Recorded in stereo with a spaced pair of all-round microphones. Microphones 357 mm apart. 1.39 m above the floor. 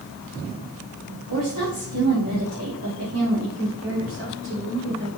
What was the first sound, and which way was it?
A woman speaking, 60° right (ahead or behind).